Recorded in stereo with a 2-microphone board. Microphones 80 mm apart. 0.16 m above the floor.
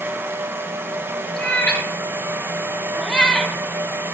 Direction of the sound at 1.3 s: 15° left (ahead or behind).